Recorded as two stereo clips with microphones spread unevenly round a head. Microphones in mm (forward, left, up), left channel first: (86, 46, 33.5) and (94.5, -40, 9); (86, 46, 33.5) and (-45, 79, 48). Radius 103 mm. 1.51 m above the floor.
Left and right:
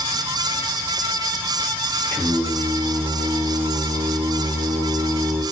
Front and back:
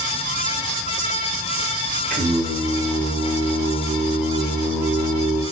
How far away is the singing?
About 0.7 m.